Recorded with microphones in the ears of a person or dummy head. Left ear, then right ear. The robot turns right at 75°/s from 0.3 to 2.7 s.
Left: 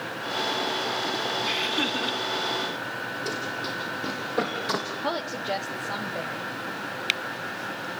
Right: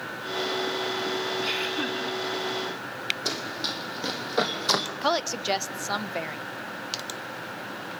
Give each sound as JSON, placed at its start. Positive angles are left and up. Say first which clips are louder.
{"t": 1.4, "sound": "laughter", "louder": "left 2 dB", "azimuth_deg": -15, "distance_m": 3.5}
{"t": 3.2, "sound": "running footsteps", "louder": "even", "side_deg": -35, "distance_m": 4.5}
{"t": 5.0, "sound": "a woman speaking", "louder": "right 3 dB", "side_deg": -75, "distance_m": 1.3}